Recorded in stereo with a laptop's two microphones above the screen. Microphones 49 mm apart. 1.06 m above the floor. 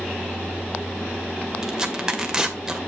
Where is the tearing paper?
15° right (ahead or behind), 2 m.